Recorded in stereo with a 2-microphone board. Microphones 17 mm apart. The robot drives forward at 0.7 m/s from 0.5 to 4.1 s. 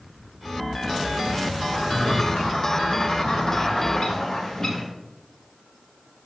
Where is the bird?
55° left (ahead or behind), 2.5 m; by 4.9 s 45° left (ahead or behind), 2.5 m.